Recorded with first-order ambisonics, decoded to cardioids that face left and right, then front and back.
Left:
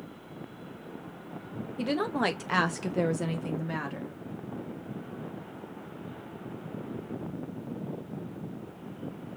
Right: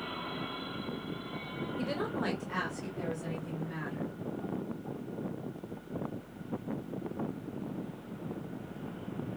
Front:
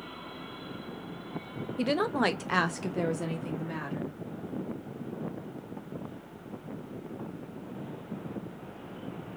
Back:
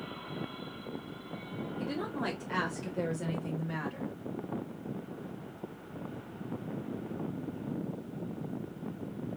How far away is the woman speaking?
About 0.7 m.